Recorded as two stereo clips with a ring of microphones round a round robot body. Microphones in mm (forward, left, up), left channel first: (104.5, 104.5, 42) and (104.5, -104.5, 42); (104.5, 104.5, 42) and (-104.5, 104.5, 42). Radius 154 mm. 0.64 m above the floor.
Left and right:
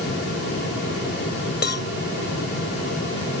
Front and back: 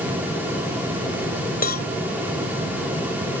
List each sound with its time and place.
1.6 s a cowbell: 50° left